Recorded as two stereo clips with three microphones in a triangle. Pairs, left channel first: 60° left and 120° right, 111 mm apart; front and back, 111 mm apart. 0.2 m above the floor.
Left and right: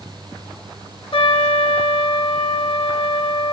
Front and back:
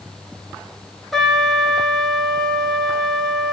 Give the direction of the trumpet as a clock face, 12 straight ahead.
9 o'clock.